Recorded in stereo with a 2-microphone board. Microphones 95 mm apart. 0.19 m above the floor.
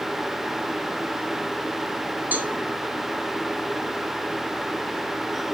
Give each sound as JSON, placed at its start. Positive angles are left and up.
{"t": 2.3, "sound": "a cowbell", "side_deg": -20, "distance_m": 2.5}